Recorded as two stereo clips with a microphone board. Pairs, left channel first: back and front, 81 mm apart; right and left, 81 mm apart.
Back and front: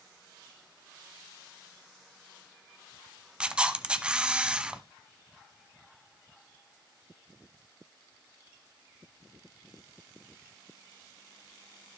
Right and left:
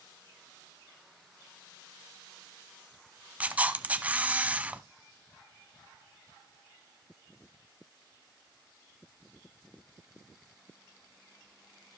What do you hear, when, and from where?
3.4 s a camera shutter: 55° left, 0.8 m